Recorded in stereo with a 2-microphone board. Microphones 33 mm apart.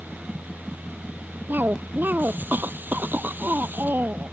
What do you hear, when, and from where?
1.5 s a cough: 75° right (ahead or behind)